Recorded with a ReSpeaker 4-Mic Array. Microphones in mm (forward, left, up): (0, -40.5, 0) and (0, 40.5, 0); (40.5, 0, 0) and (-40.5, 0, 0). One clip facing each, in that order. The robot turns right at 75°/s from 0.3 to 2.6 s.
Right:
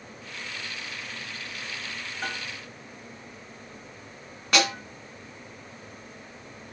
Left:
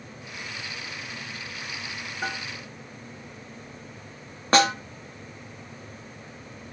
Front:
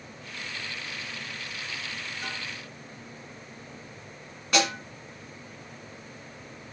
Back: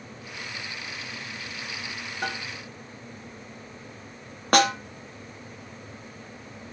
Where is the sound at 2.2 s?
165° left, 1.7 m; by 2.5 s 175° right, 1.7 m.